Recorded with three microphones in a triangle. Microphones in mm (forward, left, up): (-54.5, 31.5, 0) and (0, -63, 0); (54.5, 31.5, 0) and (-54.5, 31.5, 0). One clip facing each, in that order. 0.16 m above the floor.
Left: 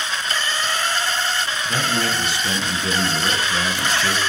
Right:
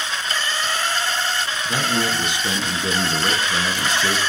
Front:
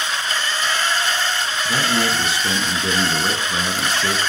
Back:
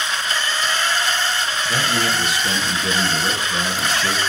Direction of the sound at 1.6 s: 15° right.